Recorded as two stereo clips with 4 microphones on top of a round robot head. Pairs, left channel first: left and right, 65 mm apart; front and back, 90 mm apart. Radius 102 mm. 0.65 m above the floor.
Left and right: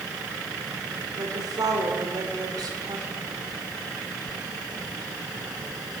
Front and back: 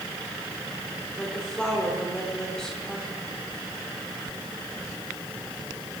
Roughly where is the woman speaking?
Right.